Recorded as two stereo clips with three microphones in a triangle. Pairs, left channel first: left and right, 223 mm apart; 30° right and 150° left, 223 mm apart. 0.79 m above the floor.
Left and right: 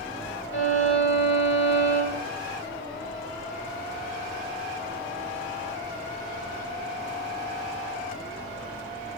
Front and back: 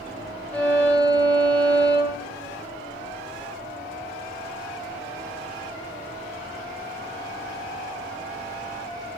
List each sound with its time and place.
0.5 s a violin: 55° left, 1.4 m